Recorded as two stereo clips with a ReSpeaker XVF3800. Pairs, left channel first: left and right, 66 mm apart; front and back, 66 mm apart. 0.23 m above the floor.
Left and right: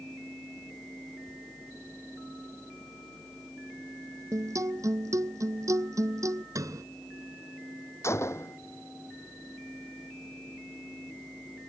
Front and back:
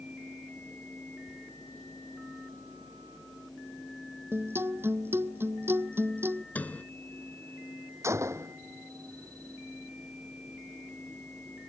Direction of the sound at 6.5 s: 65° right.